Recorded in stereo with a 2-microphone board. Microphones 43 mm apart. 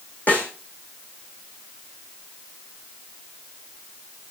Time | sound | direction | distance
0.3 | a snare drum | 40° left (ahead or behind) | 3.5 m